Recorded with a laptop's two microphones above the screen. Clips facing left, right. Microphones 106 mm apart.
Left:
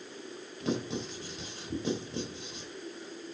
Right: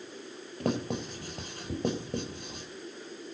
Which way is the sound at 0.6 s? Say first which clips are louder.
Right 2 dB; 55° right (ahead or behind).